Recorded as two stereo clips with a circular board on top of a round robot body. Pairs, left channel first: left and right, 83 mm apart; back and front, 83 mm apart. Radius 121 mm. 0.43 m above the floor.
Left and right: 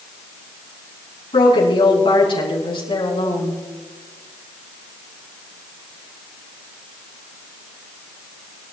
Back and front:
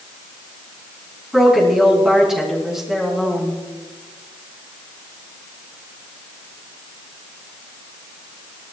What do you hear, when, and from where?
1.3 s a woman speaking: 85° left, 6.5 m